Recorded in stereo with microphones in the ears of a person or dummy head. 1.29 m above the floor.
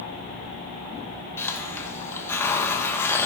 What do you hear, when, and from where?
1.4 s a hiss: 15° left (ahead or behind), 1.4 m